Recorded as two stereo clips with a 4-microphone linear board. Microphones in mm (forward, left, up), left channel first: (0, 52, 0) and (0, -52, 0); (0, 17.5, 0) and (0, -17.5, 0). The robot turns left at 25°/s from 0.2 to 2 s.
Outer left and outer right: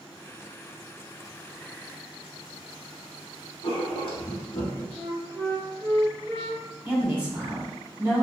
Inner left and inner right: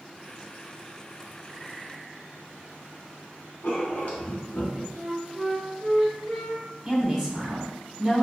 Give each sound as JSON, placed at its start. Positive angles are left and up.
{"t": 3.6, "sound": "writing", "side_deg": 60, "distance_m": 1.0}
{"t": 5.0, "sound": "a flute", "side_deg": 15, "distance_m": 0.8}
{"t": 6.8, "sound": "a woman speaking", "side_deg": -10, "distance_m": 1.4}